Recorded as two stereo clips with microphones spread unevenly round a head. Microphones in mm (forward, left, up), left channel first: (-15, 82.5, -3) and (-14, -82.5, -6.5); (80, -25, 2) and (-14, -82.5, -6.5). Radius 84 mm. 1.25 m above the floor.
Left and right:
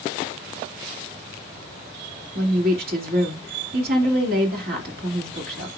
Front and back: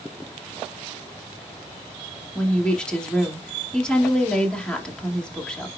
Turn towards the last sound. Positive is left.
turn(degrees=-50)